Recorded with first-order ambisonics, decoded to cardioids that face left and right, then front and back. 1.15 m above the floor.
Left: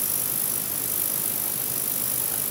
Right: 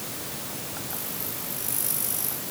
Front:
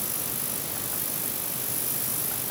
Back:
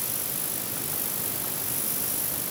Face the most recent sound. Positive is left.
No sound to turn to.